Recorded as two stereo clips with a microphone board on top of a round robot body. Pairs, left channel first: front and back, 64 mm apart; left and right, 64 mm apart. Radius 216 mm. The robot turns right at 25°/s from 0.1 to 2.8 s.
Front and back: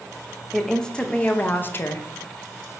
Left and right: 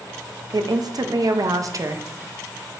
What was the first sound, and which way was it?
A woman speaking, 85° right.